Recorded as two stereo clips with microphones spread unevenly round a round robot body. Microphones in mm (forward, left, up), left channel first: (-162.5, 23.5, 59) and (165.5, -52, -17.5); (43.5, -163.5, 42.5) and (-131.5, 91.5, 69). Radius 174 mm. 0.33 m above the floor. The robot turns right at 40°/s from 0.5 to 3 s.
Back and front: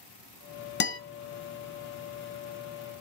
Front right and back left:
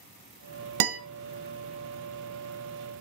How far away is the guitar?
About 1.1 m.